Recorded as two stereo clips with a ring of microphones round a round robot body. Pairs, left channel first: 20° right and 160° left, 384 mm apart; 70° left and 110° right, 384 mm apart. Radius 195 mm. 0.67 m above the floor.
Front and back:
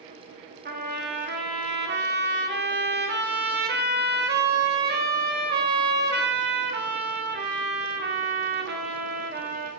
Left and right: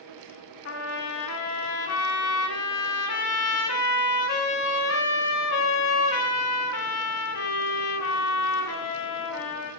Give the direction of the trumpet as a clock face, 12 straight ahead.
9 o'clock.